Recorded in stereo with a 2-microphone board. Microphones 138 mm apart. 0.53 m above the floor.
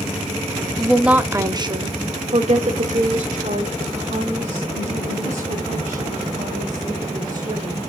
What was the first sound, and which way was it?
A woman speaking, 5° left (ahead or behind).